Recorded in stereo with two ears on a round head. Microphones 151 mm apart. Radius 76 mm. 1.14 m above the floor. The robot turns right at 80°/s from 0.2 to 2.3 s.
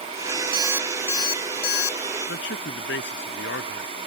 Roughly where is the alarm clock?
Ahead right.